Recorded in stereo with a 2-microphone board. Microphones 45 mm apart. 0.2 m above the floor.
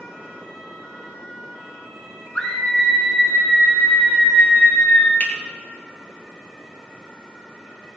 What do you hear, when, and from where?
2.4 s a scream: 15° left (ahead or behind), 2.5 m; by 5.1 s 55° left (ahead or behind), 3 m
5.2 s a finger snap: 50° left (ahead or behind), 2.5 m